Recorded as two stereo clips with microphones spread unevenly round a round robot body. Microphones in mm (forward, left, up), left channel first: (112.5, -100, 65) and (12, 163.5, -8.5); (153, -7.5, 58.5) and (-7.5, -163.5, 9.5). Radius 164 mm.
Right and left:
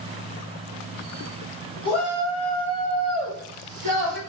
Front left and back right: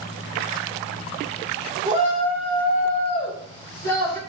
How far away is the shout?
About 2 m.